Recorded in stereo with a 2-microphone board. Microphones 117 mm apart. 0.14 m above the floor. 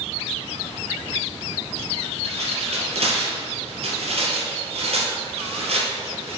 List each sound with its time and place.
2.2 s tearing paper: 60° right (ahead or behind), 3.5 m